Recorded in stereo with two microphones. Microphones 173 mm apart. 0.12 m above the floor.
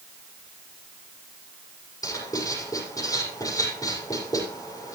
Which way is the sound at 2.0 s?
20° left (ahead or behind).